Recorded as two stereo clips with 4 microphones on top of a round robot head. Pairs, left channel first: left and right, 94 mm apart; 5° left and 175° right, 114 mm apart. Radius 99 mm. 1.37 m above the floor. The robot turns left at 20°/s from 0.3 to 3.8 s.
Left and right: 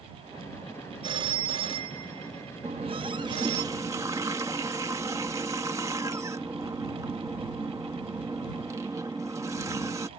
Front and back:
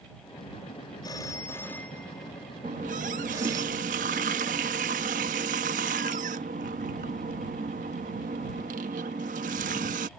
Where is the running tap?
135° right; by 10.1 s 160° right.